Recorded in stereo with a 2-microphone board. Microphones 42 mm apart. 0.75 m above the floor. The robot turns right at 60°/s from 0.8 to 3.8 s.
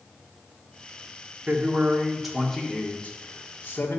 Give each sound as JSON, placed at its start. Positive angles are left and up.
{"t": 1.5, "sound": "a man speaking", "azimuth_deg": -55, "distance_m": 1.8}